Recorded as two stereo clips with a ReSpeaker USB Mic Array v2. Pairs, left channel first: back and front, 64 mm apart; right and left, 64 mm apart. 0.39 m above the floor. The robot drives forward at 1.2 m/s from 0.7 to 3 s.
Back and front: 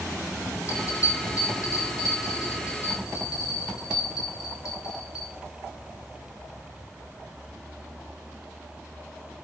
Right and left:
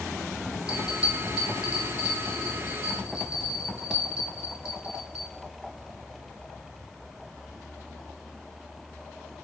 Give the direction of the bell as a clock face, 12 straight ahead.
7 o'clock.